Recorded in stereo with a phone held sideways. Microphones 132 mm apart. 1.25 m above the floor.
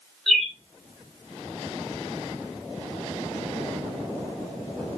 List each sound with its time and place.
0.3 s a bird: centre (ahead or behind), 1.6 m